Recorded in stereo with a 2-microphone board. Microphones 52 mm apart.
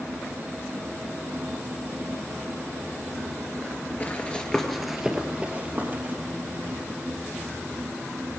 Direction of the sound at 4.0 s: 35° left (ahead or behind).